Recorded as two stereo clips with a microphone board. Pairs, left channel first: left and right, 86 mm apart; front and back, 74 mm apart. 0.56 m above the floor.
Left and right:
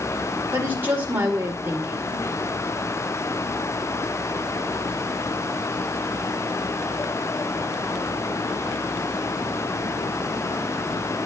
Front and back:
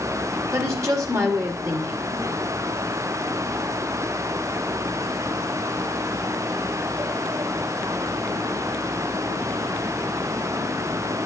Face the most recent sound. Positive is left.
turn(degrees=-150)